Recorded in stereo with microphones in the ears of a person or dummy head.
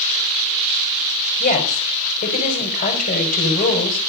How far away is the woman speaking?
About 4.5 m.